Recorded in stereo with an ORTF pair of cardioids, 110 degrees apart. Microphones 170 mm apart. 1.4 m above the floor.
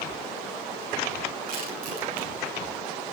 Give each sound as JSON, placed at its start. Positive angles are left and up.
{"t": 1.5, "sound": "crushing", "azimuth_deg": -60, "distance_m": 9.5}